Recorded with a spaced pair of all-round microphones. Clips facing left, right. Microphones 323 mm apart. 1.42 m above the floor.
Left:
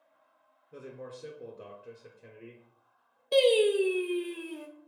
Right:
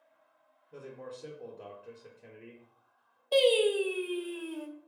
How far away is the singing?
About 0.6 m.